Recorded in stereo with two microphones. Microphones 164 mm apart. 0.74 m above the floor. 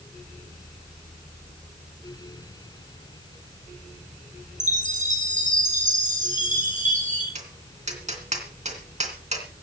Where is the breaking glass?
I don't hear breaking glass.